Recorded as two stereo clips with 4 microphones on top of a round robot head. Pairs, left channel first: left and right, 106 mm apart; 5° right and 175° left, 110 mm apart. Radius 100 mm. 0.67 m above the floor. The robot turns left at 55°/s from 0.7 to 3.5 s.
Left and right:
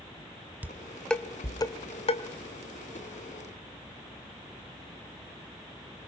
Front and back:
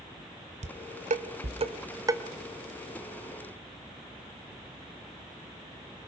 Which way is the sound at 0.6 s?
165° right.